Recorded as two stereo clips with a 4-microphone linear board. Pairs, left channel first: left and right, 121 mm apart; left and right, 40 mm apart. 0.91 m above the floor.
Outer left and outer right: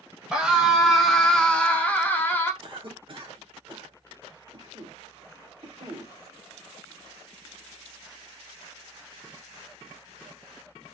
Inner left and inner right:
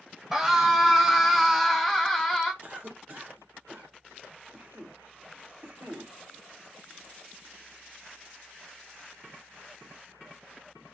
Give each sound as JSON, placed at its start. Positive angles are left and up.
{"t": 0.3, "sound": "a scream", "side_deg": -5, "distance_m": 0.9}
{"t": 2.6, "sound": "a cough", "side_deg": -45, "distance_m": 1.0}